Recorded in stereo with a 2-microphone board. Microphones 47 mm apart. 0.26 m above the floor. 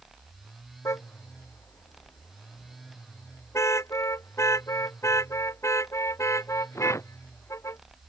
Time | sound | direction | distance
0.8 | a car horn | 85° left | ?